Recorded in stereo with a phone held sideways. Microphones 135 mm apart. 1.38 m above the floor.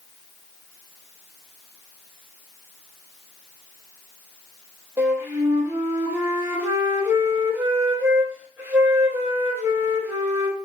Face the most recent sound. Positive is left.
turn(degrees=-15)  # may be behind; listen again after turning